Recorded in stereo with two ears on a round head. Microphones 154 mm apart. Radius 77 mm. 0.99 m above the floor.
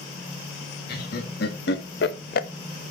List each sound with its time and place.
0.9 s laughter: 60° left (ahead or behind), 2.5 m; by 2.5 s 45° left (ahead or behind), 0.7 m